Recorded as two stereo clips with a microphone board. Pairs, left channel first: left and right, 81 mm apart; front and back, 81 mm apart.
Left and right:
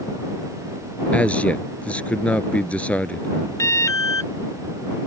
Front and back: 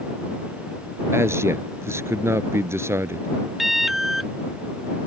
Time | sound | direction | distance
1.1 | a man speaking | 155° left | ?
3.6 | an alarm | 95° left | ?